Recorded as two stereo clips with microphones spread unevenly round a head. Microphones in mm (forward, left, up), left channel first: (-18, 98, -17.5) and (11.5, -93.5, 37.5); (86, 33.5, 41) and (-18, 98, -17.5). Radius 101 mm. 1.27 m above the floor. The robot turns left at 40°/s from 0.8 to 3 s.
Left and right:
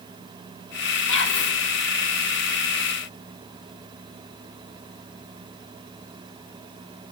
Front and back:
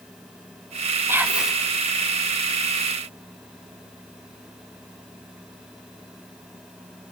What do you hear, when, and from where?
1.1 s whispering: 80° left, 2.5 m; by 1.6 s 65° left, 2.5 m